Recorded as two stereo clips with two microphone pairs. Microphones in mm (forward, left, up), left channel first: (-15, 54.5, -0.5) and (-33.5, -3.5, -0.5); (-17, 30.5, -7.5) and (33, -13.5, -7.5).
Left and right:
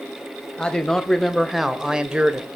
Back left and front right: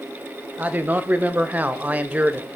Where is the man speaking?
10° left, 1.3 m; by 2.5 s 75° right, 1.0 m.